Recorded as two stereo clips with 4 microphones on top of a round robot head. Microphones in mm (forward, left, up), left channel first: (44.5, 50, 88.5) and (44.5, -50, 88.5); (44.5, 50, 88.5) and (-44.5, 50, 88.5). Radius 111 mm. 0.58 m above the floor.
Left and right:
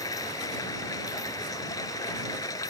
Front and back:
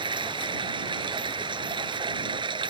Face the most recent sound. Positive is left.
turn(degrees=150)